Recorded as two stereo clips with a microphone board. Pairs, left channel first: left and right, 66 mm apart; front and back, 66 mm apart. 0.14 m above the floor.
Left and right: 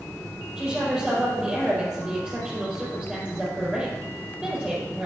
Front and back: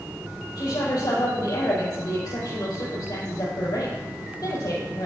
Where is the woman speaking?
10° right, 4.5 m.